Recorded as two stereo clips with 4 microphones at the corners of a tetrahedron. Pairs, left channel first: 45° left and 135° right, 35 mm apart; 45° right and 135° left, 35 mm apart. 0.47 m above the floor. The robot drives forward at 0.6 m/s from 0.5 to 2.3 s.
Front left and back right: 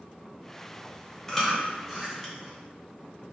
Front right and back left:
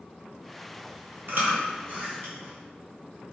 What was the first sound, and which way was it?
Chewing, 125° left.